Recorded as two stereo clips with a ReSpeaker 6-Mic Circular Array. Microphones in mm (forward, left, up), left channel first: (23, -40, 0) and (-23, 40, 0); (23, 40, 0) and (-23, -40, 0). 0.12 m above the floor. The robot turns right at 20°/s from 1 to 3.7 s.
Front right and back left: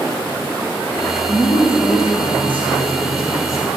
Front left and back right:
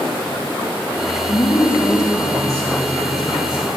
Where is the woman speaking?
10° right, 3.5 m; by 3.7 s 35° left, 3.5 m.